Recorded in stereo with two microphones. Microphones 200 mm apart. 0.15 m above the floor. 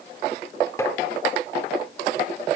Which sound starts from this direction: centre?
Tapping, at 0.8 s.